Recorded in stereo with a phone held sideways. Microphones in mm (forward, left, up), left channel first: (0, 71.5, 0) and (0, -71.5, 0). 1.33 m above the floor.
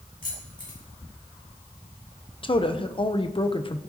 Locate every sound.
0.2 s keys jangling: 75° left (ahead or behind), 6 m
2.4 s a woman speaking: 35° left (ahead or behind), 0.8 m